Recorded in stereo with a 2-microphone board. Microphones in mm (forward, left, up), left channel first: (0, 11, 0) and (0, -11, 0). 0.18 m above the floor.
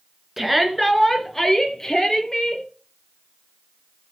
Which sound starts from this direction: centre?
A shout, at 0.4 s.